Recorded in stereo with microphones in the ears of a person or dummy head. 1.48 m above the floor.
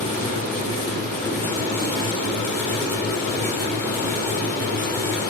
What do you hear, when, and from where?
0.0 s a fan: 15° left (ahead or behind), 7 m